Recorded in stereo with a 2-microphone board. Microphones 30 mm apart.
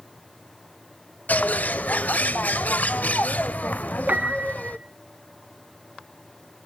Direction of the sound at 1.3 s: 70° left (ahead or behind).